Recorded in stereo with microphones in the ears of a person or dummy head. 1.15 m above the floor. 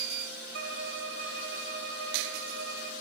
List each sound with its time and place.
0.5 s a violin: 65° right (ahead or behind), 2.5 m